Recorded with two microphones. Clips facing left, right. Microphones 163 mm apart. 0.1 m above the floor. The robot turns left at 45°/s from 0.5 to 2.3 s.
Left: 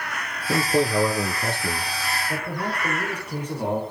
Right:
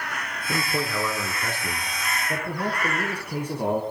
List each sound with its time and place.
0.5 s a man speaking: 20° left (ahead or behind), 1.7 m
2.3 s a man speaking: 10° right (ahead or behind), 3 m